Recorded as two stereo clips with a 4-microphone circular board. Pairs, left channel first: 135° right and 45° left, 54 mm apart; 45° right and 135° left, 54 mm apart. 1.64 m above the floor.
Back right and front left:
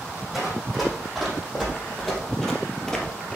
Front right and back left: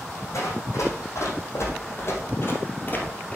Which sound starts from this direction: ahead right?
Running footsteps, at 0.3 s.